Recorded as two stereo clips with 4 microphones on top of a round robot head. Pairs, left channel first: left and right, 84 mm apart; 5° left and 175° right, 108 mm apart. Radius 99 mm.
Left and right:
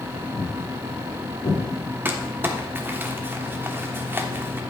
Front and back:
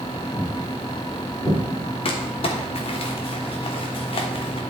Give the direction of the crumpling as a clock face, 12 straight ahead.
1 o'clock.